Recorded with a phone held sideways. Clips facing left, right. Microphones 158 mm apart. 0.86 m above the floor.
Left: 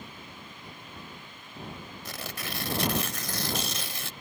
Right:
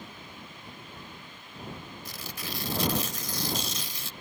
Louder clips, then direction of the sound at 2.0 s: Left 3 dB; 65° left (ahead or behind).